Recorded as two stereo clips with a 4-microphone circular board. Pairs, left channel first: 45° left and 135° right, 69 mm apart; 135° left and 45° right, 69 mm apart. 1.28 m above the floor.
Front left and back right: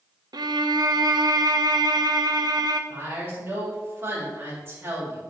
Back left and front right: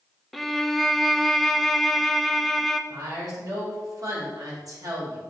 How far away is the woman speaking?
About 3.5 m.